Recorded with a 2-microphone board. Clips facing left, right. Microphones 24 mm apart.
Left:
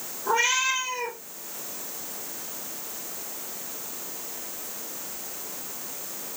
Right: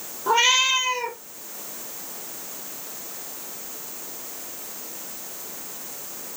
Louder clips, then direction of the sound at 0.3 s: Right 5 dB; 45° right (ahead or behind).